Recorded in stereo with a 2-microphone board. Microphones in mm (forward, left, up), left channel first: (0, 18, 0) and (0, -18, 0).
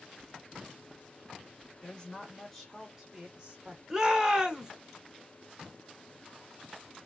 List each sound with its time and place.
1.8 s a woman speaking: 20° left (ahead or behind), 1.5 m; by 3.8 s 30° right (ahead or behind), 1.5 m
3.9 s a shout: 20° right (ahead or behind), 0.8 m